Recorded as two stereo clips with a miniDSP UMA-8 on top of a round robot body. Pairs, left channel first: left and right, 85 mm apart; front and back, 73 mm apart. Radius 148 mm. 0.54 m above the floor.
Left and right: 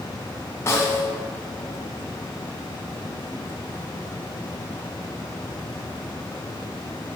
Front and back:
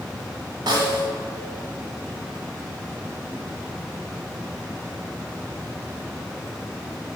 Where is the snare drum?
155° left, 1.0 m.